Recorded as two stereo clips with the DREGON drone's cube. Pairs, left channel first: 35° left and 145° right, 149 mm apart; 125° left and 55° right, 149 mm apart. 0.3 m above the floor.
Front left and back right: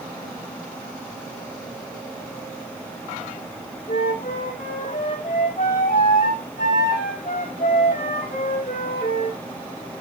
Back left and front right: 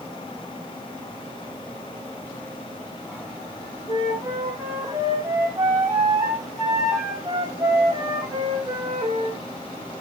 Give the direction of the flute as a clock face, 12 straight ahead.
12 o'clock.